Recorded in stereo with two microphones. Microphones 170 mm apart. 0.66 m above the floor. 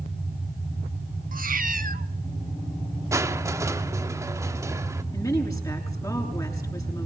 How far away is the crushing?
About 1.2 m.